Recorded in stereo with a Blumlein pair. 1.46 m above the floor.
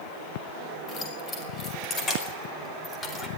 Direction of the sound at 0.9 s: 20° left.